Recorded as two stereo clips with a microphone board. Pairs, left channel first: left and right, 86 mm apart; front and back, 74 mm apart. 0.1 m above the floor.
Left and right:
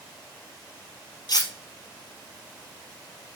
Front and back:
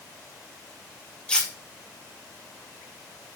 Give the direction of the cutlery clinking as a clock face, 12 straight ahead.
9 o'clock.